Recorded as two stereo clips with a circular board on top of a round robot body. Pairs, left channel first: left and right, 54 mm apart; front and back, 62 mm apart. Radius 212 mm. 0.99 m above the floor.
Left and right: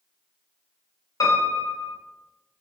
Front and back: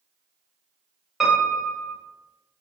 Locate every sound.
1.2 s a piano: 95° left, 2 m